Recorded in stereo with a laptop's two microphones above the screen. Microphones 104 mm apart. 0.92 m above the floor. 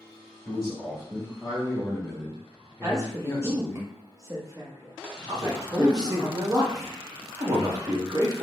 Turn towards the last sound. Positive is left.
turn(degrees=-35)  # may be behind; listen again after turning